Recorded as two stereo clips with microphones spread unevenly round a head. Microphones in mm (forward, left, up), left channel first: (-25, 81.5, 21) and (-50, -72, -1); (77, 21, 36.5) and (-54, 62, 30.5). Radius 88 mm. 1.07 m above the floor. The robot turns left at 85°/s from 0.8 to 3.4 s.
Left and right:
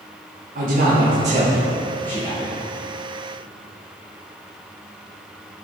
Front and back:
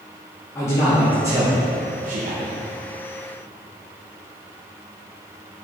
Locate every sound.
0.6 s a man speaking: 90° right, 1.3 m; by 2.6 s 120° left, 1.3 m